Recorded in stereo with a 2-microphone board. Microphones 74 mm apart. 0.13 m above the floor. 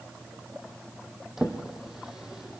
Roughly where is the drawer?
Centre.